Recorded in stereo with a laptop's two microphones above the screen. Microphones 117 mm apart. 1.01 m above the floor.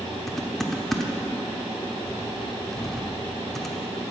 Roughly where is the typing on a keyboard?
Centre.